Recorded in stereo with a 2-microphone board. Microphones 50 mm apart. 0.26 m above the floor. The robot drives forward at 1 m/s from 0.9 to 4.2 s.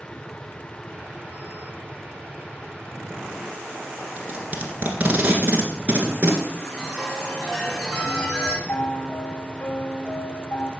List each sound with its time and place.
4.2 s tape being pulled: 35° right (ahead or behind), 1.9 m
6.6 s a chime: 10° left (ahead or behind), 3 m
8.7 s a piano: 40° left (ahead or behind), 1.0 m